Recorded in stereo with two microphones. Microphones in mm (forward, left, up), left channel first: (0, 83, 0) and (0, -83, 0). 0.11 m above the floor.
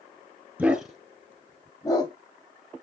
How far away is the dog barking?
About 1.0 m.